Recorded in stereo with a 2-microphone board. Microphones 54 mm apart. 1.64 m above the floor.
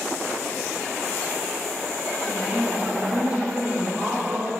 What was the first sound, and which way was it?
A woman speaking, 5° right (ahead or behind).